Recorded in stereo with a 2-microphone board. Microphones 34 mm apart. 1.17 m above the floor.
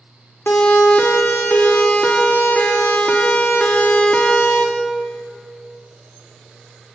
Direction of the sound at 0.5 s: 75° left (ahead or behind).